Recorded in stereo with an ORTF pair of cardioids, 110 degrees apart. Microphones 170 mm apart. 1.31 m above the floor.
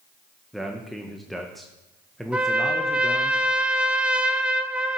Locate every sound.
0.5 s a man speaking: straight ahead, 0.8 m
2.3 s a trumpet: 5° right, 0.6 m